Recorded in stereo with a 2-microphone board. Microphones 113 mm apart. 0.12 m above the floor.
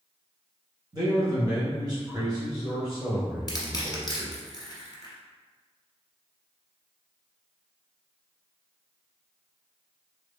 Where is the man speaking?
35° right (ahead or behind), 1.9 m.